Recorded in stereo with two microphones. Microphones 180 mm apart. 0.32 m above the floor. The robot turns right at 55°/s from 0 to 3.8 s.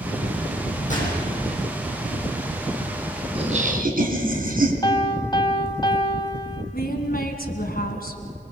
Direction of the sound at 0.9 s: 45° left (ahead or behind).